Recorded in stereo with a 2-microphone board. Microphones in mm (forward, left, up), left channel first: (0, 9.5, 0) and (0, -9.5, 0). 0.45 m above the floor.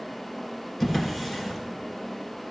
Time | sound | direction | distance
0.8 | a drawer | 5° left (ahead or behind) | 2 m